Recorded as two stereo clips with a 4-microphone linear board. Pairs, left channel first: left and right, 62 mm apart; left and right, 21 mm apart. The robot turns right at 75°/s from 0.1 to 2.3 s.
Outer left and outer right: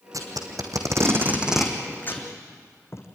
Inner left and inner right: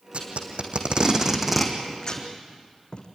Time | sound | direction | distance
0.1 | tape being pulled | 65° right (ahead or behind) | 3 m